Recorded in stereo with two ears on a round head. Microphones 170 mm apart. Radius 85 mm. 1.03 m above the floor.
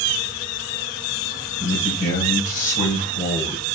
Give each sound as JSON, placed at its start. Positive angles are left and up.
{"t": 1.6, "sound": "a man speaking", "side_deg": 50, "distance_m": 5.0}